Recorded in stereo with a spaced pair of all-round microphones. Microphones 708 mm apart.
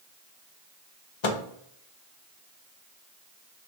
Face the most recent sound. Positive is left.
turn(degrees=45)  # may be behind; listen again after turning